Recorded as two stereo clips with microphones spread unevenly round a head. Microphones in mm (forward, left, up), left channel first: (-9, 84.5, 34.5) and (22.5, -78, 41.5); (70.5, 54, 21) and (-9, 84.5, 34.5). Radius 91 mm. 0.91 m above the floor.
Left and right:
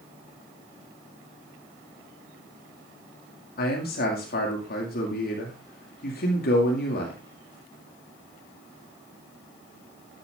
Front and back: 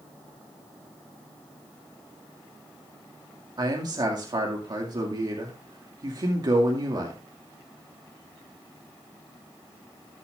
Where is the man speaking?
120° left, 2 m.